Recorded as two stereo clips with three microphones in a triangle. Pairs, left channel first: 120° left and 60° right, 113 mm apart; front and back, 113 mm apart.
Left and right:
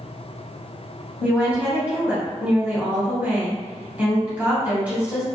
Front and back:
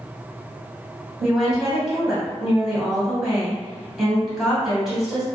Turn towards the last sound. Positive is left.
turn(degrees=-100)